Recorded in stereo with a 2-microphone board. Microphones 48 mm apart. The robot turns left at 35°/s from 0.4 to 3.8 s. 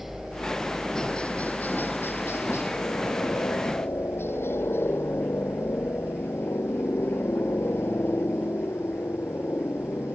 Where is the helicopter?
175° right; by 10.1 s 65° left.